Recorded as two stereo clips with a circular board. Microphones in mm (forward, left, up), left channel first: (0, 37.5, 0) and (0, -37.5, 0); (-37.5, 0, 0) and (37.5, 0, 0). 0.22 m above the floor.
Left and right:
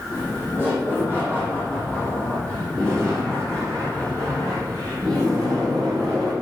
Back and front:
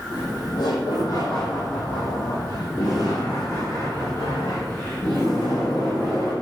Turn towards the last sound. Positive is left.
turn(degrees=-115)